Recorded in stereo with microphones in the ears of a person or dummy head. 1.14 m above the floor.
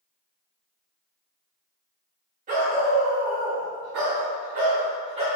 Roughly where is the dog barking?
Right.